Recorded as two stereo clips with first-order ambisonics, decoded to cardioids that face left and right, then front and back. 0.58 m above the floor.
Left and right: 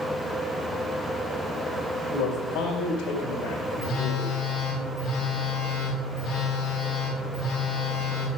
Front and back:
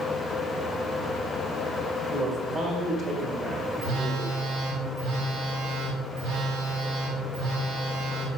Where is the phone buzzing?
150° left, 3 m.